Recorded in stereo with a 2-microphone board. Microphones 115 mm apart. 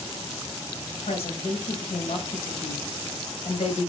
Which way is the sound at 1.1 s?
75° left (ahead or behind).